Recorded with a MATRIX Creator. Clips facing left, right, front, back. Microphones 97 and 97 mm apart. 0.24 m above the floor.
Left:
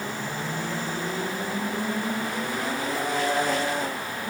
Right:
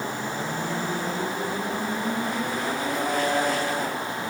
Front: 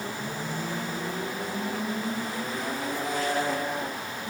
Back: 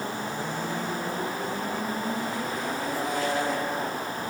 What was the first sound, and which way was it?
Only background noise.